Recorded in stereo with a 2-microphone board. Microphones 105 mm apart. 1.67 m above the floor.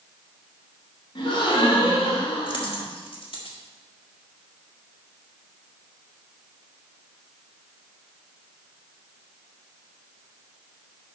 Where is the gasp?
50° left (ahead or behind), 1.9 m.